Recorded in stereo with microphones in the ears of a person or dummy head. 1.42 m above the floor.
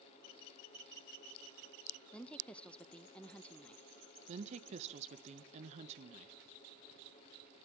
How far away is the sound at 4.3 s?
About 1.4 m.